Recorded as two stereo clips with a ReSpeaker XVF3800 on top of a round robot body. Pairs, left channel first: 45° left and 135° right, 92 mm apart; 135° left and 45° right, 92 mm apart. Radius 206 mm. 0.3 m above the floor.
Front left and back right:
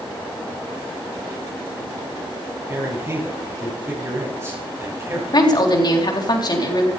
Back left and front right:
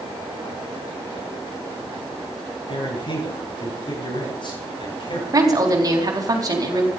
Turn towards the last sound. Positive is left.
turn(degrees=5)